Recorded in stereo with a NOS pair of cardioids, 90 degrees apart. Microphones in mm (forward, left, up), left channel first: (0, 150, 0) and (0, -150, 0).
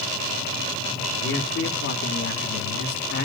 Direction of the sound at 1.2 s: 50° left.